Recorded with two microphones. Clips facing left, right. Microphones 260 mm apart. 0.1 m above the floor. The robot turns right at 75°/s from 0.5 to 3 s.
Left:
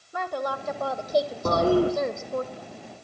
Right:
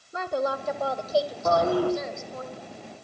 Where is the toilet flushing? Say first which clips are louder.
Left 4 dB; 125° left, 4 m; by 1.9 s 160° left, 4 m.